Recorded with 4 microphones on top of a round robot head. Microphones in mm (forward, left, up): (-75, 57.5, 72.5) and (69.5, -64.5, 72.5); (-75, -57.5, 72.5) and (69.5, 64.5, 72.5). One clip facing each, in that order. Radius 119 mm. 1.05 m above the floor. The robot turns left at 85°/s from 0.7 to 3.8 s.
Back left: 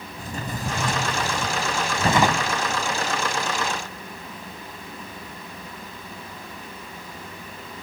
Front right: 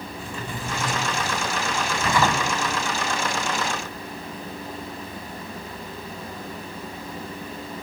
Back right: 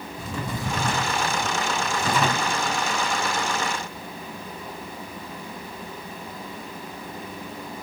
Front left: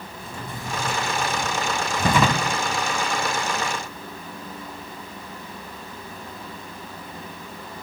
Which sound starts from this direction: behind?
A drawer, at 0.2 s.